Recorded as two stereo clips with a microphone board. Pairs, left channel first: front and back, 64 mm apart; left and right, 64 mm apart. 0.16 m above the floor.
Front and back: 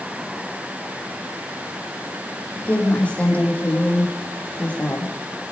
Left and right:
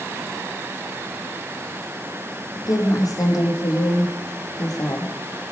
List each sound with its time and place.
2.5 s a woman speaking: 70° left, 7.5 m